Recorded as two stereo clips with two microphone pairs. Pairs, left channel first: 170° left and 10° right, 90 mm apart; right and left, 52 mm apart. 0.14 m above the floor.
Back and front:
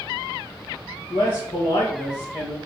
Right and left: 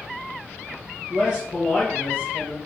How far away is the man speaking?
About 2.5 m.